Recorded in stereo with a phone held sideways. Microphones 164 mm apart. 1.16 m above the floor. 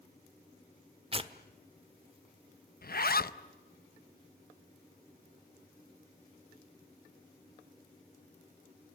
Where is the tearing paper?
35° right (ahead or behind), 1.1 m.